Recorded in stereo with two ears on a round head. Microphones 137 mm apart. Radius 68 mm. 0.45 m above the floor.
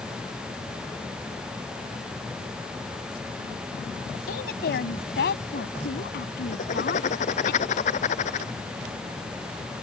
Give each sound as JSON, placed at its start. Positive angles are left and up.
{"t": 4.3, "sound": "a woman speaking", "side_deg": 70}
{"t": 6.5, "sound": "writing", "side_deg": 50}